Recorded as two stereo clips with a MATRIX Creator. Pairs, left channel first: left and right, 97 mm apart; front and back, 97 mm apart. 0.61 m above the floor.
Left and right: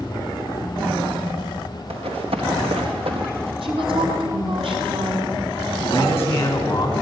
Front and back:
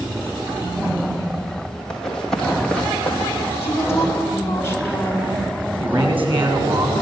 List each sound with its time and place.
1.9 s running footsteps: 85° right, 4.5 m; by 3.5 s 75° right, 3 m
3.6 s a woman speaking: 65° right, 5 m
5.8 s a man speaking: 155° left, 7 m